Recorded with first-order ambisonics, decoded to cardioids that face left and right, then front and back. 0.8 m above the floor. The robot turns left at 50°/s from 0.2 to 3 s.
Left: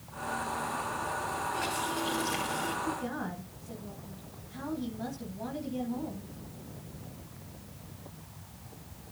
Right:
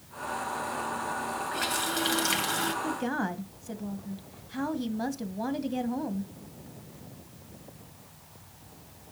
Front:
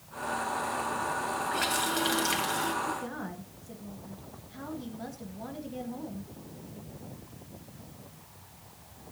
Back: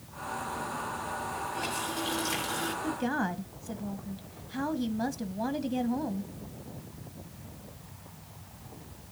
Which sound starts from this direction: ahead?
A running tap, at 1.5 s.